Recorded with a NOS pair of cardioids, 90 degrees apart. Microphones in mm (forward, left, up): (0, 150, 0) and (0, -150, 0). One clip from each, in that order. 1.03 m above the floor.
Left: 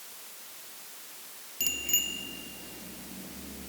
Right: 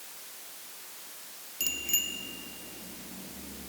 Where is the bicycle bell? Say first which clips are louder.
Left 1 dB; 10° left.